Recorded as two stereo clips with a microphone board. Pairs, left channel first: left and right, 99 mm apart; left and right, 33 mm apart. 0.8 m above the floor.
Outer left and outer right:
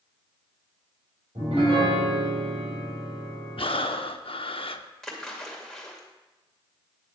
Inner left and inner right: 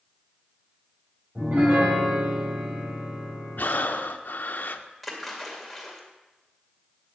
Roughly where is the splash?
Centre.